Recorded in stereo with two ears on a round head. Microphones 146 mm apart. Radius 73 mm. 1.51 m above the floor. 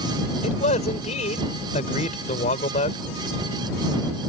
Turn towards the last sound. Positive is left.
turn(degrees=45)  # may be behind; listen again after turning